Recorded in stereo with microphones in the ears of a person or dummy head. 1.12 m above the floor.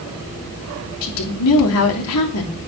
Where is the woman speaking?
80° left, 3 m.